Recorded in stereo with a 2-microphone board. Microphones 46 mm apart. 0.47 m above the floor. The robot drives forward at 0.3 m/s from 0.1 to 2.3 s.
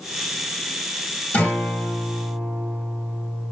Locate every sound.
1.3 s a guitar: 45° left (ahead or behind), 1.2 m